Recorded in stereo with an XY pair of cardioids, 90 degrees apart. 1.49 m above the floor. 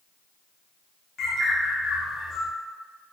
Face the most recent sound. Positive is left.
turn(degrees=60)